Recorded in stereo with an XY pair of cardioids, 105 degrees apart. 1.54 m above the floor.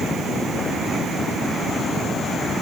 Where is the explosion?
No explosion in this recording.